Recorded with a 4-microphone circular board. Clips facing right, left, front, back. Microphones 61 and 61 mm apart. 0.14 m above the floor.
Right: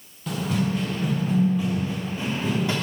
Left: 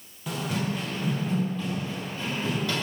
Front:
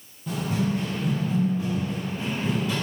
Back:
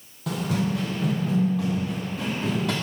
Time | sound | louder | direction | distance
0.3 | running footsteps | right 4 dB, even | 170° left | 3 m